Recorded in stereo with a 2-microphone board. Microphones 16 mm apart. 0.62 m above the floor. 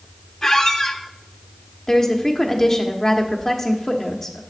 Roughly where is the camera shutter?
I don't hear a camera shutter.